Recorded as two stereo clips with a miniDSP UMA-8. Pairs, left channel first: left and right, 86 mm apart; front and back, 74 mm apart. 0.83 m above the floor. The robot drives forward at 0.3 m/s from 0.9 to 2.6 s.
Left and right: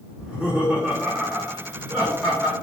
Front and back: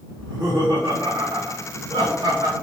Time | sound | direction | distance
0.2 | laughter | 175° right | 1.0 m